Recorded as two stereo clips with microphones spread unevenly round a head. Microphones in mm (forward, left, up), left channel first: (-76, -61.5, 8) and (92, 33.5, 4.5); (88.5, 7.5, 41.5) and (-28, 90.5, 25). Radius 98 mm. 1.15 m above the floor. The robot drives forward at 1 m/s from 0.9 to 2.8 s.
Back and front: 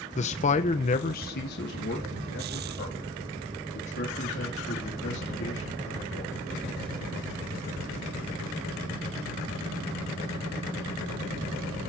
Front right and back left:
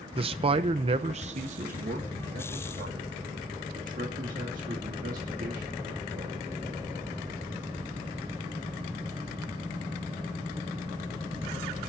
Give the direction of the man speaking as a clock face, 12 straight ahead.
6 o'clock.